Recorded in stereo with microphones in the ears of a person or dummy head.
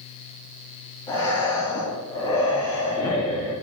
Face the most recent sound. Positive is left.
turn(degrees=15)  # may be behind; listen again after turning